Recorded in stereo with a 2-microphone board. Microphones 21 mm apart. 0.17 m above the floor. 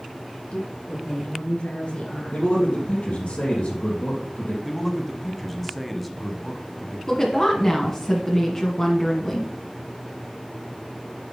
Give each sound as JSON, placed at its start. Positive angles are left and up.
{"t": 0.5, "sound": "a woman speaking", "side_deg": 60, "distance_m": 4.0}
{"t": 2.3, "sound": "a man speaking", "side_deg": 70, "distance_m": 3.5}
{"t": 4.6, "sound": "a man speaking", "side_deg": 0, "distance_m": 1.1}
{"t": 7.1, "sound": "a woman speaking", "side_deg": 25, "distance_m": 1.4}